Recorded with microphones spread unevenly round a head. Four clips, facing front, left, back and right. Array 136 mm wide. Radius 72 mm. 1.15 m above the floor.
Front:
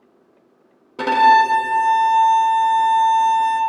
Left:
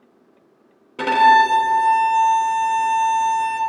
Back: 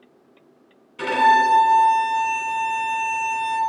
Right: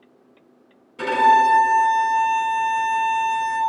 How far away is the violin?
About 1.2 m.